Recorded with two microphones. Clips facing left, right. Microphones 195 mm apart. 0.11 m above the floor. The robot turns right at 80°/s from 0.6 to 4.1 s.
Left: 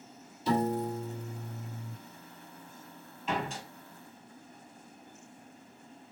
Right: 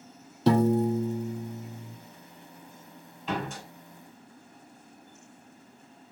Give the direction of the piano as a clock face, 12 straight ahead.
3 o'clock.